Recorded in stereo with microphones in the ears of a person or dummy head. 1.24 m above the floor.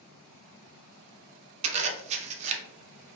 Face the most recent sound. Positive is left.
turn(degrees=-35)  # may be behind; listen again after turning